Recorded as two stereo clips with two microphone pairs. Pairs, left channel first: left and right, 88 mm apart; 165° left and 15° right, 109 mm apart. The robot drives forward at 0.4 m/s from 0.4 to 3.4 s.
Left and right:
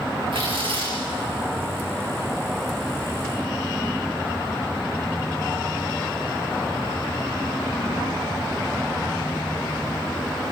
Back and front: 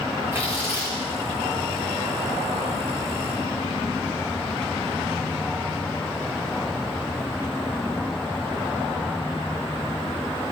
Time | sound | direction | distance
0.3 | tearing paper | 80° right | 8.5 m